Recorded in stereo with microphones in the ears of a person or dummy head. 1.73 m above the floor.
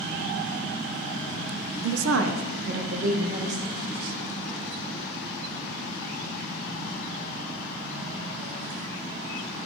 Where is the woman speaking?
80° right, 0.7 m; by 3.8 s 35° right (ahead or behind), 1.6 m.